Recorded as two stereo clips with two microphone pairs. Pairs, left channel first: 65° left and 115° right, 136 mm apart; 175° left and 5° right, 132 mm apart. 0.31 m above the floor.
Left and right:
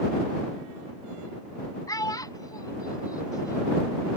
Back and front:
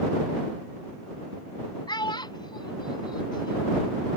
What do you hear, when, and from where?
1.9 s a child speaking: 125° left